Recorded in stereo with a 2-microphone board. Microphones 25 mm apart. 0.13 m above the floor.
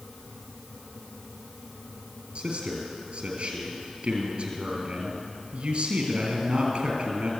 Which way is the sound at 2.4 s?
50° right (ahead or behind).